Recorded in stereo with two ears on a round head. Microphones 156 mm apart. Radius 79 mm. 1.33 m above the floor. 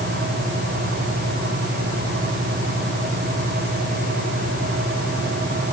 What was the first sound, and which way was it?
Only background noise.